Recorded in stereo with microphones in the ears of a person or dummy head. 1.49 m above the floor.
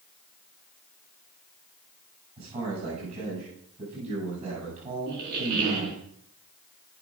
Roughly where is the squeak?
Right.